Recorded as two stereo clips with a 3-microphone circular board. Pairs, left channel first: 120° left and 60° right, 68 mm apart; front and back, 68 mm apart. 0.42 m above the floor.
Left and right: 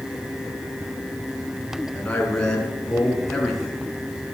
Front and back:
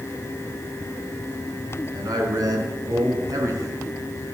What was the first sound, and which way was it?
A man speaking, 165° right.